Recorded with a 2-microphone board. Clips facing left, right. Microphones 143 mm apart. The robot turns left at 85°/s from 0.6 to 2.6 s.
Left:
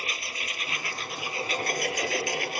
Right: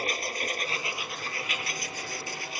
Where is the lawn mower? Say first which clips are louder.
Right 6 dB; 135° right; by 2.6 s 55° left.